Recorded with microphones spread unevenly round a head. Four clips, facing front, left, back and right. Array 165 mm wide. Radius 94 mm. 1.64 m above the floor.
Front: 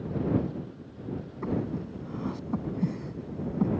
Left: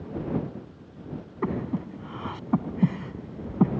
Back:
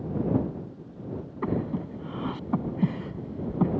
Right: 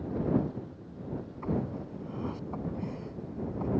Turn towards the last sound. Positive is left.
turn(degrees=100)